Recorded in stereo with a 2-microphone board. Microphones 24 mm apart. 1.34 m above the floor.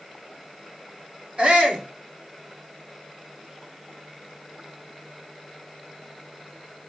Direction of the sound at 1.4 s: 60° right (ahead or behind).